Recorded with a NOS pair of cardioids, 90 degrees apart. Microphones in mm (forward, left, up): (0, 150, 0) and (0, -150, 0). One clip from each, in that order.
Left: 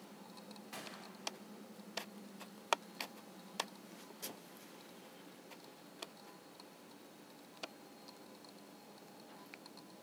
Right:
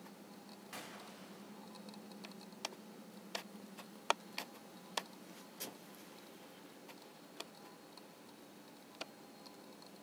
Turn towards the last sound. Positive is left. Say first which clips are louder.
# even
turn(degrees=-5)